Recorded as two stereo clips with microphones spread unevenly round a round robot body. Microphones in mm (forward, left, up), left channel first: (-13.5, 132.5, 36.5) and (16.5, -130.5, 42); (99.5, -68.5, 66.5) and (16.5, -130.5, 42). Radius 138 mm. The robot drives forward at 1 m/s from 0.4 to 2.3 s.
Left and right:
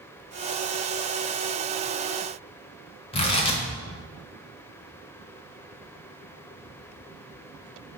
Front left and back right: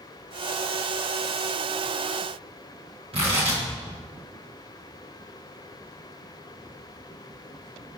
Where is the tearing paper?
165° left, 1.0 m.